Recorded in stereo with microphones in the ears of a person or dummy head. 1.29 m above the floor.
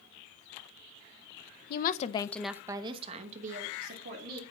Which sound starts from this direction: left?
A woman speaking, at 1.7 s.